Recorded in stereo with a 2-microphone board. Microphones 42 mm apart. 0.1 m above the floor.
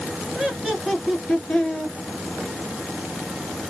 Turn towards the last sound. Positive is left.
turn(degrees=25)  # may be behind; listen again after turning